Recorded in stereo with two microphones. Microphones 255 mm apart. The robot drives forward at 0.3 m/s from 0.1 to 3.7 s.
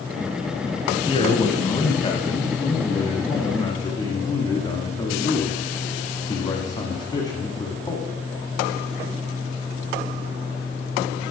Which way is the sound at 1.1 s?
20° left (ahead or behind).